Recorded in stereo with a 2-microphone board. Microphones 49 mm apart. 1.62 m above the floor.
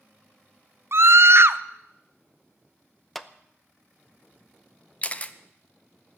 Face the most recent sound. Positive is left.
turn(degrees=30)  # may be behind; listen again after turning